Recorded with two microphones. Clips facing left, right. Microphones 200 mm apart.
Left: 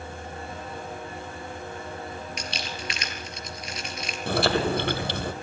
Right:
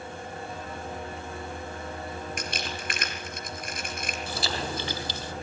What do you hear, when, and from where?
2.4 s crumpling: 55° right (ahead or behind), 3.5 m
4.3 s chewing: 65° left (ahead or behind), 2.5 m